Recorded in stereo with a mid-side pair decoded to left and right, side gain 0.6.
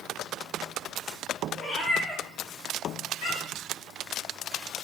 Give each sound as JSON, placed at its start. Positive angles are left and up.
{"t": 1.6, "sound": "a cat meowing", "azimuth_deg": 20, "distance_m": 1.1}